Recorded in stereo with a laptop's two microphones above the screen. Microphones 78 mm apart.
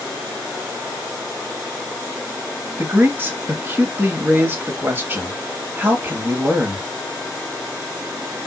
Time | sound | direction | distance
2.8 | a man speaking | 25° right (ahead or behind) | 1.7 m